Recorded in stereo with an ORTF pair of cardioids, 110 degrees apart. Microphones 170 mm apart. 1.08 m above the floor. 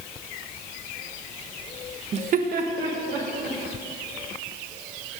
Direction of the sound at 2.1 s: 40° right.